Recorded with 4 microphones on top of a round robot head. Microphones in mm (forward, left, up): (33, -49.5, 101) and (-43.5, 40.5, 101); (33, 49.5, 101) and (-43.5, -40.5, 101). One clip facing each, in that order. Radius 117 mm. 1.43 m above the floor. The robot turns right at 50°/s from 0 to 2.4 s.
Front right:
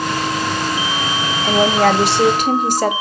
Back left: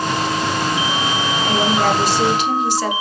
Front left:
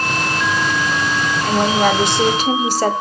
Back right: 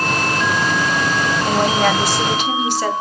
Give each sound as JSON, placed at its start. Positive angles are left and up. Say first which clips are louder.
{"t": 1.4, "sound": "a woman speaking", "louder": "front right 4 dB, front left 2 dB", "azimuth_deg": -50, "distance_m": 1.1}